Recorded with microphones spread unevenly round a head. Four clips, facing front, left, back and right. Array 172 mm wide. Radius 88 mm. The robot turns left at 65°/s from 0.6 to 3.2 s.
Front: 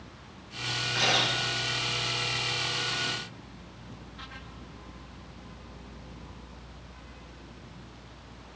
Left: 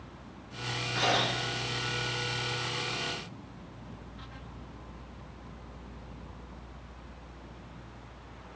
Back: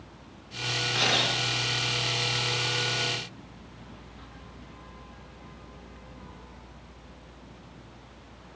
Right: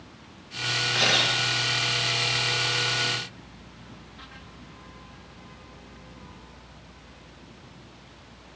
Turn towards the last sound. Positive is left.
turn(degrees=115)